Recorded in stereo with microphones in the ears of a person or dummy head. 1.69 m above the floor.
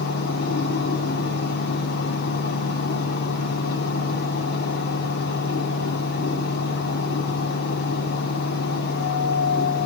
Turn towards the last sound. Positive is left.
turn(degrees=55)  # may be behind; listen again after turning